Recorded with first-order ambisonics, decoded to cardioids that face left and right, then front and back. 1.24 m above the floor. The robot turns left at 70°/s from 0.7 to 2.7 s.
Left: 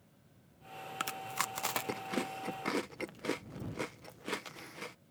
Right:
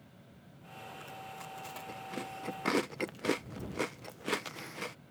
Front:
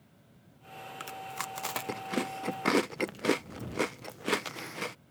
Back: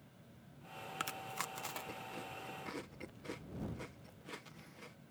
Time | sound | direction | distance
1.0 | chewing | 105° left | ?